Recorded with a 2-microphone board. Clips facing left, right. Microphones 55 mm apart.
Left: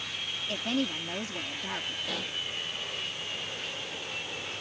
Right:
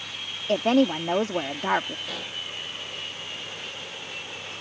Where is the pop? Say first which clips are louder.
Even; centre (ahead or behind).